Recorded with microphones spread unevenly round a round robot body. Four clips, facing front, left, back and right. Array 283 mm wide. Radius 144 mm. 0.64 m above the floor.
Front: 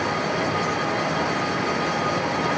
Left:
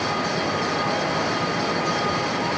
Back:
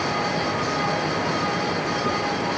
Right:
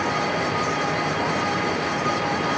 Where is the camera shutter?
I don't hear a camera shutter.